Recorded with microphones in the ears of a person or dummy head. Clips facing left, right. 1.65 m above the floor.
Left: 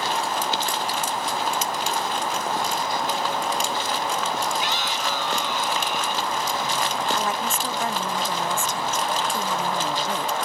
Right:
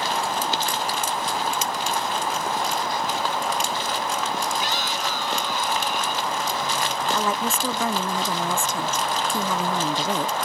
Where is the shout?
35° right (ahead or behind); by 6.3 s 40° right (ahead or behind).